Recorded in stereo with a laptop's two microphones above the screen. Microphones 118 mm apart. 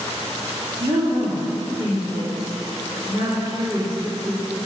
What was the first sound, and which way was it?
A woman speaking, 35° right (ahead or behind).